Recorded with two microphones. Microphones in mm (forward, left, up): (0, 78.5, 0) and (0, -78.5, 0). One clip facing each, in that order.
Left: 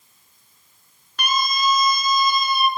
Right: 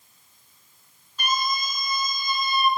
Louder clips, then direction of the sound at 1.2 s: Left 4 dB; 75° left (ahead or behind).